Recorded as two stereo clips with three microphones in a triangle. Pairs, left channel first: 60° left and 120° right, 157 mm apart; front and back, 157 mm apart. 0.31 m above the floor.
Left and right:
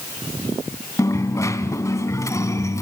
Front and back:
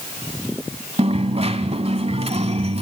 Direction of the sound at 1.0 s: 130° left.